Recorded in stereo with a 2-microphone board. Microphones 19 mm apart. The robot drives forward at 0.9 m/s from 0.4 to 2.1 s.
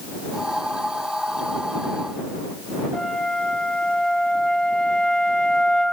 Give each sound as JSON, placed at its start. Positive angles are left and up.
{"t": 2.9, "sound": "a flute", "side_deg": 65, "distance_m": 2.0}